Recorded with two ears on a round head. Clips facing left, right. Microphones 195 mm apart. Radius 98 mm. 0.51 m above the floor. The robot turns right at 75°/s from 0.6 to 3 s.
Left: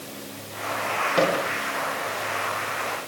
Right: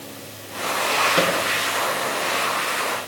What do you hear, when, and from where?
1.2 s a microwave: 15° right (ahead or behind), 5 m; by 1.4 s centre (ahead or behind), 5 m